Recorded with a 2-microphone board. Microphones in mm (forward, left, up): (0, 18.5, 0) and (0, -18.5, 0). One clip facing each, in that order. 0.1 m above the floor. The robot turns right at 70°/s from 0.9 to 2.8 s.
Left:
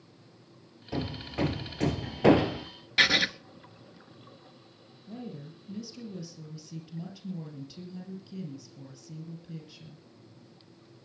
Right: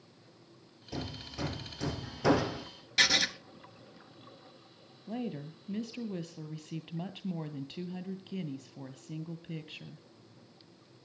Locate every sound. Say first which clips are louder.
0.9 s hammering: left 7 dB; 25° left (ahead or behind), 1.6 m
3.0 s writing: left 4 dB; 20° left (ahead or behind), 0.6 m
5.1 s a woman speaking: right 4 dB; 45° right (ahead or behind), 2 m